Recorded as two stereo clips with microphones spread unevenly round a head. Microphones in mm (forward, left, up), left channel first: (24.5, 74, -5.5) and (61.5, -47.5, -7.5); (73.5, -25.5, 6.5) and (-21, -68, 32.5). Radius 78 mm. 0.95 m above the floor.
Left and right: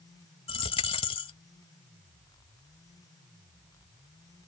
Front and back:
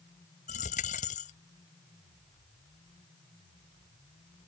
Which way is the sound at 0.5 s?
65° left.